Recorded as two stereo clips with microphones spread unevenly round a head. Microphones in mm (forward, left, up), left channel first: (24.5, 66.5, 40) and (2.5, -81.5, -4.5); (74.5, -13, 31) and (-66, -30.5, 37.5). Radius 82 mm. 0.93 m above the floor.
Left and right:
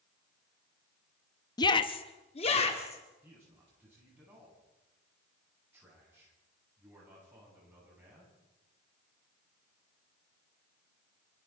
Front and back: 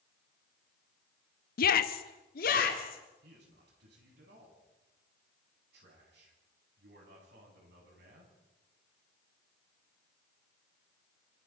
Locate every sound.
1.6 s a shout: 10° left, 0.8 m; by 3.0 s 30° left, 2.5 m
3.2 s a man speaking: 175° right, 9.5 m